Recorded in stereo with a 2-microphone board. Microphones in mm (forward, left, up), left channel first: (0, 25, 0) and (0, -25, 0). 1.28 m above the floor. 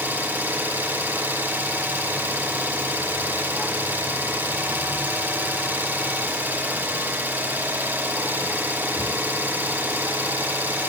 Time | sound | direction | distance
0.0 | an engine running | 40° right (ahead or behind) | 1.2 m